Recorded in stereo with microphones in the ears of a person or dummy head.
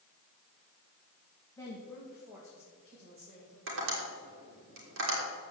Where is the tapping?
70° right (ahead or behind), 5 m.